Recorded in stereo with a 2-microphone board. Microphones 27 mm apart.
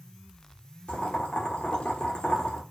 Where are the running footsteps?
I don't hear running footsteps.